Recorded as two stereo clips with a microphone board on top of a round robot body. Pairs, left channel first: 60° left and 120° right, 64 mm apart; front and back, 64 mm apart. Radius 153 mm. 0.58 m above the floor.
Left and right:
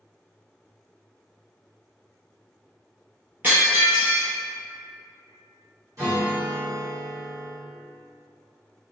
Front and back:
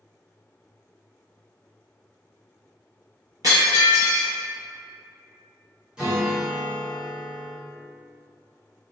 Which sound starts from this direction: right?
A guitar, at 6.0 s.